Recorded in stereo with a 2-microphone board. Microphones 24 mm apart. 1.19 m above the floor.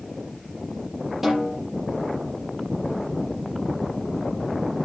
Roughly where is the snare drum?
Right.